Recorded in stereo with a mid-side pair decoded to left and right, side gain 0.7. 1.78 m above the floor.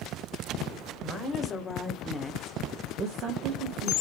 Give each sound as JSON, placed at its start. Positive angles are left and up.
{"t": 1.0, "sound": "a woman speaking", "azimuth_deg": 35, "distance_m": 1.1}